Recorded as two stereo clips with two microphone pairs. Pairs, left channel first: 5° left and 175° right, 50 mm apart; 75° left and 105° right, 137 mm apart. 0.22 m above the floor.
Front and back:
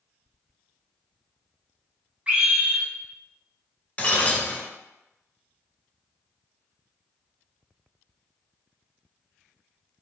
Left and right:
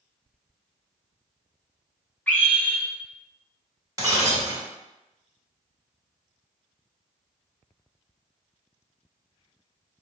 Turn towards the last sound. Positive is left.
turn(degrees=-45)